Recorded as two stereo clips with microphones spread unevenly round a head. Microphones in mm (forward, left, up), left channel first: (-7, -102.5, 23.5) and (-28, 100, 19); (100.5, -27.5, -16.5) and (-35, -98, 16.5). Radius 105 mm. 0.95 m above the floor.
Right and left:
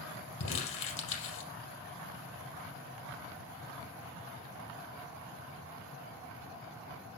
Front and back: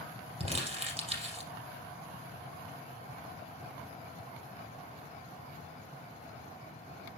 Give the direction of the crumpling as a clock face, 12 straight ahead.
3 o'clock.